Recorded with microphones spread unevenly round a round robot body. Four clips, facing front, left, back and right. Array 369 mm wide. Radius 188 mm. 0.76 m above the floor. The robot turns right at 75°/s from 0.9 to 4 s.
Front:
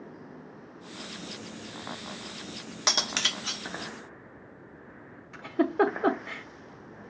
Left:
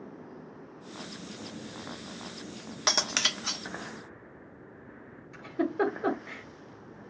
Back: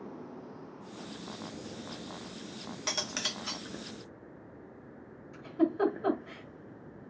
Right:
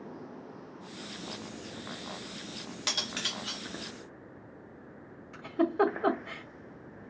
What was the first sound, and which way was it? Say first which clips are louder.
Cutlery clinking: left 8 dB, front 7 dB; 30° left.